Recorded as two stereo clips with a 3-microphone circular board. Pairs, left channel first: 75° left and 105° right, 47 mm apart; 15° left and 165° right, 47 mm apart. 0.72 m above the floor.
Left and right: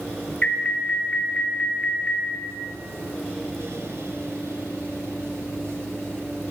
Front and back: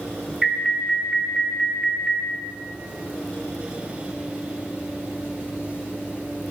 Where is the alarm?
120° left, 2 m.